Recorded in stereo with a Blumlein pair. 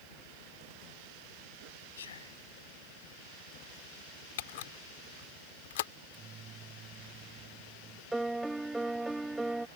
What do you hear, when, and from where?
2.0 s whispering: 65° left
4.4 s a camera shutter: 55° left
6.0 s a microwave: 25° right
8.1 s a piano: 5° right